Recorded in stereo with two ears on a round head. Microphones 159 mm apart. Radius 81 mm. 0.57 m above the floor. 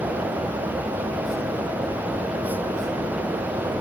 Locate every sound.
Only background noise.